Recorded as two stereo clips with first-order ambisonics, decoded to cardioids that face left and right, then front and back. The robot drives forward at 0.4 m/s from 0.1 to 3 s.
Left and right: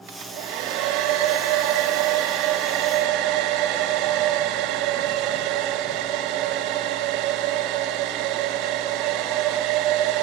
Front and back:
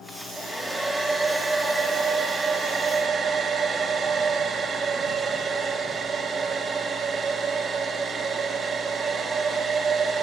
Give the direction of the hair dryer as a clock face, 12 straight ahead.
3 o'clock.